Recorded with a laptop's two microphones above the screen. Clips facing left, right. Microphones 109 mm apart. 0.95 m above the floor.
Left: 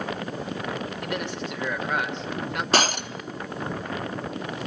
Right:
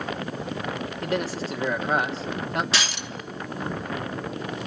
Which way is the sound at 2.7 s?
45° left (ahead or behind).